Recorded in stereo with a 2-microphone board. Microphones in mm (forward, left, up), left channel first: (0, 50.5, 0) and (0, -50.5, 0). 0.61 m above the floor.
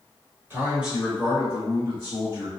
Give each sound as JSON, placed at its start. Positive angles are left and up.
{"t": 0.5, "sound": "a man speaking", "side_deg": -20, "distance_m": 1.1}